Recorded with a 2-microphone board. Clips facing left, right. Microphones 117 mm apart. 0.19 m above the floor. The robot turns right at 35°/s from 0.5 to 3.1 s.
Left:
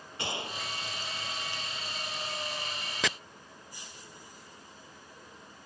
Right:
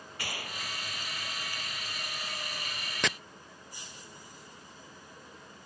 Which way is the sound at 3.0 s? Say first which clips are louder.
Even; centre (ahead or behind).